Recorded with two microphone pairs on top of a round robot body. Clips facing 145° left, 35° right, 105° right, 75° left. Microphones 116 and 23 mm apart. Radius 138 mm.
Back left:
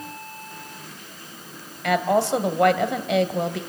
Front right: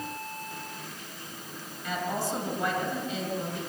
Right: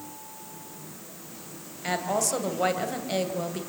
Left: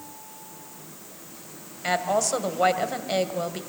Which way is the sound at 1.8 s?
140° left.